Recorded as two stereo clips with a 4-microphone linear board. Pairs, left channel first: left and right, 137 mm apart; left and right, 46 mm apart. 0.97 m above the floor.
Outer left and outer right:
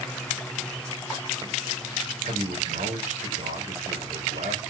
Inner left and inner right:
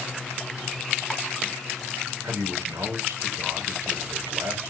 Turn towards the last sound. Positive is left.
turn(degrees=-70)  # may be behind; listen again after turning